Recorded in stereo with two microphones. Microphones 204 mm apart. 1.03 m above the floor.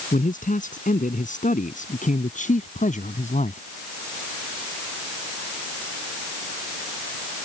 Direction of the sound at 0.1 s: 40° left (ahead or behind).